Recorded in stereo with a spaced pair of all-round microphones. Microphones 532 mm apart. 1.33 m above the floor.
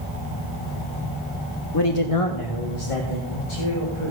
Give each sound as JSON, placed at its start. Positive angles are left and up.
{"t": 1.7, "sound": "a man speaking", "side_deg": 40, "distance_m": 0.7}